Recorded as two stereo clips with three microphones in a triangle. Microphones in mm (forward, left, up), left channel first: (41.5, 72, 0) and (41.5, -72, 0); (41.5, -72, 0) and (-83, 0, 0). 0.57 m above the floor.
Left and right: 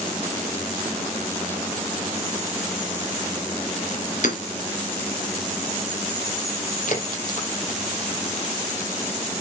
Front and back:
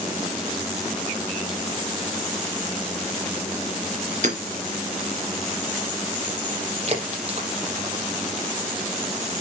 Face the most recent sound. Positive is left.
turn(degrees=115)